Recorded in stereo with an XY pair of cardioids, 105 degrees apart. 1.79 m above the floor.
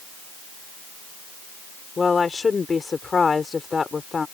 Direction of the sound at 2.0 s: 30° left.